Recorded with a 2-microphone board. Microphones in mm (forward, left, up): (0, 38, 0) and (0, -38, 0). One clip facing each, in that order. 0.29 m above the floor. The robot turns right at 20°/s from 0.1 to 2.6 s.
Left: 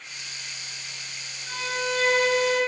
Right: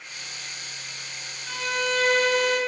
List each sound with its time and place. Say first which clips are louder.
1.5 s a violin: right 2 dB; 50° right (ahead or behind), 1.6 m; by 2.6 s 65° right (ahead or behind), 1.6 m